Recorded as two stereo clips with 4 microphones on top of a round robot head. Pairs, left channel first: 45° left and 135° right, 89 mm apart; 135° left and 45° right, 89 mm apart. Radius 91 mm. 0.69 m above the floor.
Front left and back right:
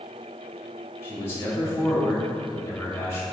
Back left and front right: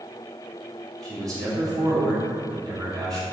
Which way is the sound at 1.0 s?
10° right.